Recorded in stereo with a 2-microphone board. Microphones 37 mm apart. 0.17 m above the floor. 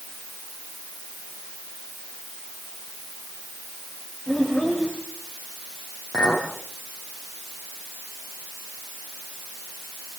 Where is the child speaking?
Centre (ahead or behind), 8 m.